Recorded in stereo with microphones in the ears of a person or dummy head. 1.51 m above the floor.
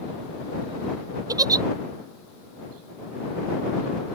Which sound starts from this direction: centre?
A giggle, at 1.3 s.